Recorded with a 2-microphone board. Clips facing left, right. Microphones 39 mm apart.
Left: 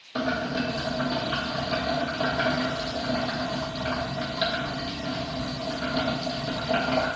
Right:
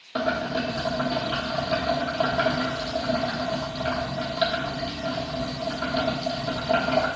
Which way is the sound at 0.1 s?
30° right (ahead or behind).